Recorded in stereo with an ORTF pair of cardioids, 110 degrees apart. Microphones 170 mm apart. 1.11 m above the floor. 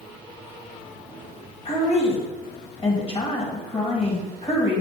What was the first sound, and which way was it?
A woman speaking, 40° left.